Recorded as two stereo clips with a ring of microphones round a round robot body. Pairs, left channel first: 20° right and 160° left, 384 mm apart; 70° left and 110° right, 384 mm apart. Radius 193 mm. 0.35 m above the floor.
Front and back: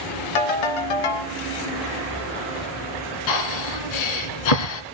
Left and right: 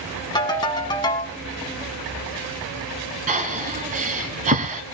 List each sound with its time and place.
0.3 s a ringtone: 10° right, 1.7 m
3.3 s breathing: 40° right, 1.4 m